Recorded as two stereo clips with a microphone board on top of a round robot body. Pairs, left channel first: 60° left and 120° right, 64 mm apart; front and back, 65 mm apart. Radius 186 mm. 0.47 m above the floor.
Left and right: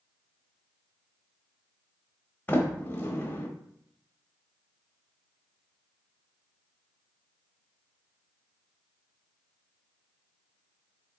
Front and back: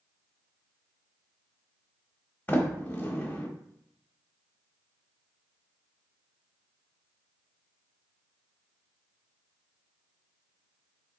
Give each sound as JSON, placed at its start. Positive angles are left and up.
{"t": 2.5, "sound": "a sliding door", "azimuth_deg": 30, "distance_m": 1.2}